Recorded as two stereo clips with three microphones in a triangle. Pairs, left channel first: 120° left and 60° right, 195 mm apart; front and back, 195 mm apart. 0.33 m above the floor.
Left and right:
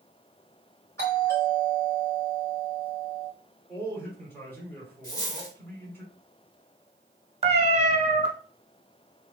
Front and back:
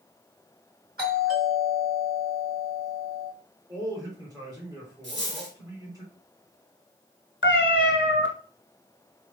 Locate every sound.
1.0 s a doorbell: 170° right, 2 m
3.7 s a man speaking: 175° left, 1.3 m
5.0 s a dropped coin: 170° right, 1.9 m
7.4 s a cat meowing: straight ahead, 0.7 m